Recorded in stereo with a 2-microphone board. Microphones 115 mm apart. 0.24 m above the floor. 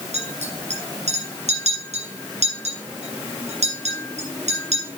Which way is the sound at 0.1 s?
75° right (ahead or behind).